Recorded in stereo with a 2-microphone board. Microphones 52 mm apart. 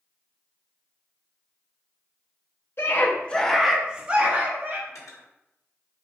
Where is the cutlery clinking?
85° left, 1.2 m.